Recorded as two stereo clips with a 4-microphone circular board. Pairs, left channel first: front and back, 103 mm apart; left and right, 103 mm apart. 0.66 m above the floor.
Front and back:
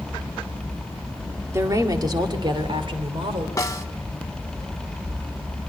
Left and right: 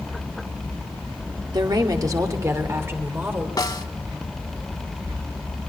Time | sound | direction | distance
1.5 | a woman speaking | 125° right | 1.8 m
3.6 | a snare drum | 50° left | 0.8 m